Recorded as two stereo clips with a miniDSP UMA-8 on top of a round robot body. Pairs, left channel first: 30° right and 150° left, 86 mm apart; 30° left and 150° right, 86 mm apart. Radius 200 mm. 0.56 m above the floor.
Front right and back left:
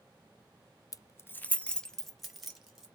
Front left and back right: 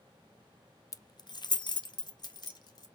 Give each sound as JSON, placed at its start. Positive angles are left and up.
{"t": 0.9, "sound": "keys jangling", "azimuth_deg": 0, "distance_m": 0.6}